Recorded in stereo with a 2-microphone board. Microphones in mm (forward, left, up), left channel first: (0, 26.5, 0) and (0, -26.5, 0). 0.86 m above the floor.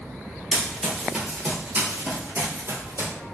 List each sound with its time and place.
0.5 s running footsteps: 5° left (ahead or behind), 1.2 m; by 3.1 s 60° right (ahead or behind), 1.5 m